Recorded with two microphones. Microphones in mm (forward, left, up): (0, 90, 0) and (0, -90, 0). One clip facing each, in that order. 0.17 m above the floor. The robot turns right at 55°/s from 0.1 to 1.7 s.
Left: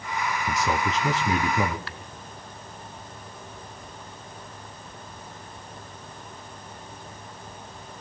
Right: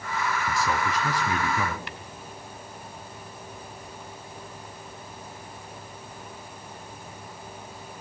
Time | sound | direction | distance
0.5 | a man speaking | 20° left (ahead or behind) | 1.0 m
1.9 | tapping | 20° right (ahead or behind) | 0.7 m